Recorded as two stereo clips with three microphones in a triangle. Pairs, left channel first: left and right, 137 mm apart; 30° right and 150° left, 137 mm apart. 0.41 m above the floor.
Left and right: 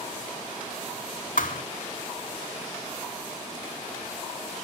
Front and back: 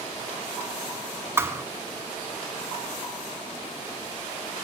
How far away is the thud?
About 1.4 m.